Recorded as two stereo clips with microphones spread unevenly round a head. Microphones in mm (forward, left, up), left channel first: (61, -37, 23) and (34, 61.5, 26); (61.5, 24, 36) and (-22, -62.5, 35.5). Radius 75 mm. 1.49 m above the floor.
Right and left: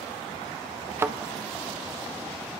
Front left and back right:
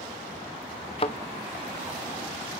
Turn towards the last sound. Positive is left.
turn(degrees=55)